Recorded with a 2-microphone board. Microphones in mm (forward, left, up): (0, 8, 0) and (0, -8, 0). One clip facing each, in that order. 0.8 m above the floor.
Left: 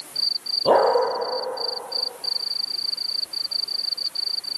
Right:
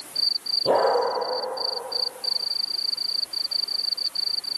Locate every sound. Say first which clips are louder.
0.7 s a dog barking: left 4 dB; 40° left (ahead or behind), 7.5 m